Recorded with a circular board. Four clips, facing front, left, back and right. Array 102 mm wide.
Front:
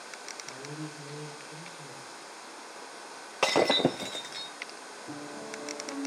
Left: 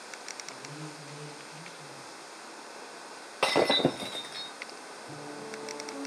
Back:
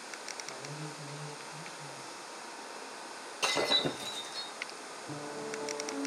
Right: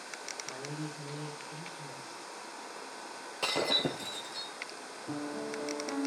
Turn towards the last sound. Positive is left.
turn(degrees=-70)